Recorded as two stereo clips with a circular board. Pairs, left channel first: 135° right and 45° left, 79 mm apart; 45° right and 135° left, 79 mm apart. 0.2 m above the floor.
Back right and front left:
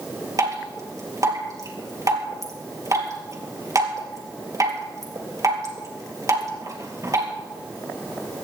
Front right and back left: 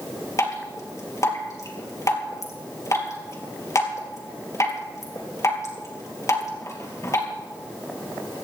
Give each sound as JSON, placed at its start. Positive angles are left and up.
{"t": 0.4, "sound": "dripping", "azimuth_deg": 0, "distance_m": 3.5}